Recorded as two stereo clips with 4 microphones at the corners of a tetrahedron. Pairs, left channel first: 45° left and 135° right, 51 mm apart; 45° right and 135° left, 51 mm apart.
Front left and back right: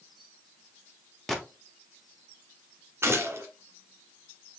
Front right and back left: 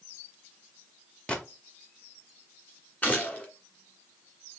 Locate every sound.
1.3 s a gunshot: 40° right, 1.1 m
3.0 s a gunshot: 100° right, 1.7 m